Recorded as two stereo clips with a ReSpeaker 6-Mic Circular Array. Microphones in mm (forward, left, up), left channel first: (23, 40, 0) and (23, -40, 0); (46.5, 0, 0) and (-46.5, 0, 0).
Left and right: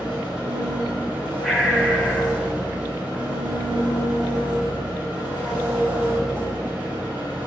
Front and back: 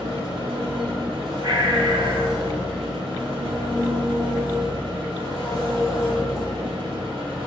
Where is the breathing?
170° left, 0.9 m.